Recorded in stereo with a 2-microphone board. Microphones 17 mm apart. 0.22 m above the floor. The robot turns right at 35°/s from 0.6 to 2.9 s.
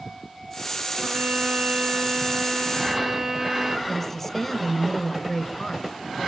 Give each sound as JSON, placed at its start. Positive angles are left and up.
{"t": 1.0, "sound": "a violin", "azimuth_deg": -105, "distance_m": 1.9}
{"t": 3.9, "sound": "a woman speaking", "side_deg": 15, "distance_m": 2.5}